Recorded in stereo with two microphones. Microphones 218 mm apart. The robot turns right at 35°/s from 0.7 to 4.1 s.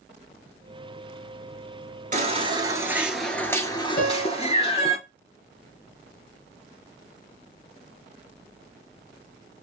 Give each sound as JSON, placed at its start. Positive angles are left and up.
{"t": 2.1, "sound": "a baby crying", "azimuth_deg": -40, "distance_m": 0.9}
{"t": 4.0, "sound": "a piano", "side_deg": 60, "distance_m": 3.5}